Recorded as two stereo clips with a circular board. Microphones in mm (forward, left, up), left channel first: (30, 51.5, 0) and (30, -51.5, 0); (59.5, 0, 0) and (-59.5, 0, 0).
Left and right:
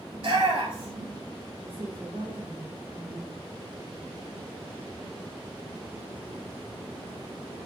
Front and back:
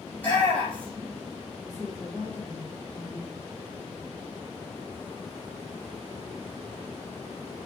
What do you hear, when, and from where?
0.1 s a shout: 75° right, 4 m
1.6 s a woman speaking: 100° right, 3.5 m